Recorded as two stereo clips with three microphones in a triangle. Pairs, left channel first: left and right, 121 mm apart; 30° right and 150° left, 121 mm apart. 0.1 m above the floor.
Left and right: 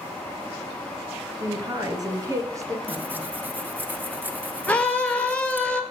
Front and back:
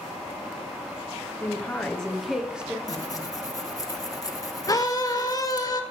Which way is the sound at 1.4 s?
85° right.